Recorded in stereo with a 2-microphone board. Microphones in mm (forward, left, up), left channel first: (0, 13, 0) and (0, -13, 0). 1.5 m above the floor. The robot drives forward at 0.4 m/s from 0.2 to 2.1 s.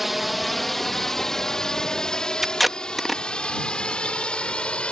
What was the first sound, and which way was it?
A drone, 5° right (ahead or behind).